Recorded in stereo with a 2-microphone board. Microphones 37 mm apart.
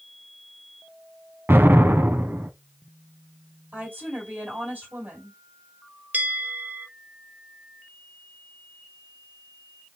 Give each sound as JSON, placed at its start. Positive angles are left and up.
{"t": 1.5, "sound": "an explosion", "side_deg": -75, "distance_m": 0.6}
{"t": 3.7, "sound": "a woman speaking", "side_deg": -55, "distance_m": 2.0}
{"t": 6.1, "sound": "a bell", "side_deg": -50, "distance_m": 0.7}